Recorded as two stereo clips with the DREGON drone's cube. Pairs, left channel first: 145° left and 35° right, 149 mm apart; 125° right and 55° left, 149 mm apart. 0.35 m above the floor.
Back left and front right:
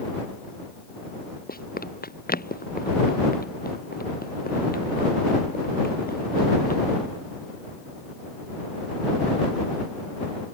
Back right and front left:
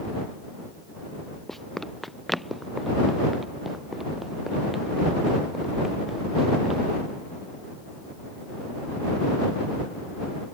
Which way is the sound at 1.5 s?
145° left.